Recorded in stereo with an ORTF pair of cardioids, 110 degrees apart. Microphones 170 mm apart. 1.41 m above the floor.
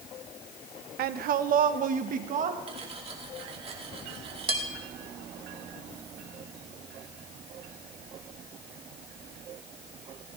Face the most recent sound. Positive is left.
turn(degrees=-35)